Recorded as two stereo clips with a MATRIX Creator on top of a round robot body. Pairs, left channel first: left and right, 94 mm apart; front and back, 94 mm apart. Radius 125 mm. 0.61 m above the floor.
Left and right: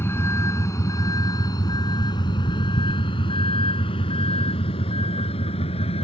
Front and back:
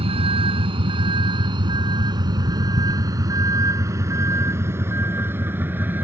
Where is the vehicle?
155° left; by 6.0 s 110° left.